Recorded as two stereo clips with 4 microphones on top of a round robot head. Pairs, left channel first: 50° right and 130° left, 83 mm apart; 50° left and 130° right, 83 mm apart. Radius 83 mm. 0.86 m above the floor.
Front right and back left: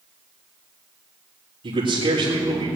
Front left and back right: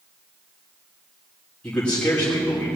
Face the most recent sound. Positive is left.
turn(degrees=125)